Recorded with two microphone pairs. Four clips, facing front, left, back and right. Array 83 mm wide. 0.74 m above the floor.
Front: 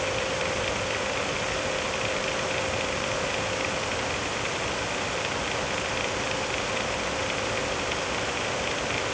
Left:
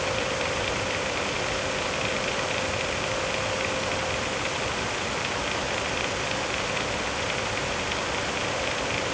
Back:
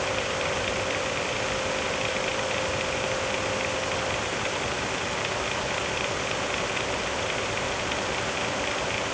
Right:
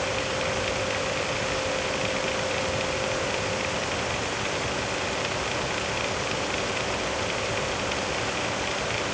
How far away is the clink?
No clink in this recording.